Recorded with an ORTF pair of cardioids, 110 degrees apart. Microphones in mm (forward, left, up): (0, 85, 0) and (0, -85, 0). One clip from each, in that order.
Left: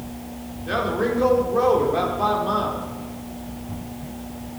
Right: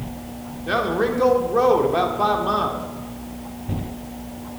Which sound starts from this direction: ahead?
A man speaking, at 0.7 s.